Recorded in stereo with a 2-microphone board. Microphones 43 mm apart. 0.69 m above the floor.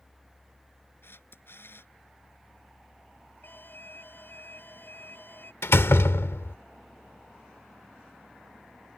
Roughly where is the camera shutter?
Left.